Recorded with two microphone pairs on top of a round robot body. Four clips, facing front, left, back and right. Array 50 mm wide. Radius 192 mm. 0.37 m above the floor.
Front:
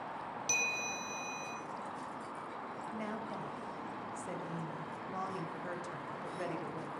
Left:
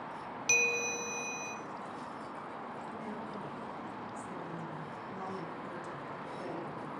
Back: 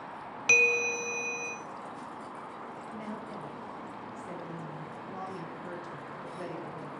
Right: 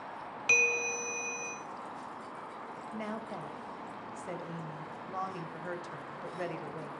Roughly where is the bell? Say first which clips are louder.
Right 3 dB, back 13 dB; behind.